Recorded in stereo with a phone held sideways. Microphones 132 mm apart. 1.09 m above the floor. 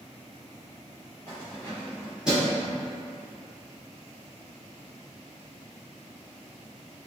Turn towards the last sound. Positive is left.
turn(degrees=-15)  # may be behind; listen again after turning